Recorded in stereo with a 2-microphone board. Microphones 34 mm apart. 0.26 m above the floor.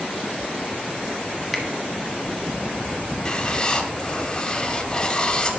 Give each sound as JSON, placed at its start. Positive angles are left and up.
{"t": 1.5, "sound": "a finger snap", "side_deg": 0, "distance_m": 1.3}
{"t": 3.2, "sound": "writing", "side_deg": 25, "distance_m": 0.7}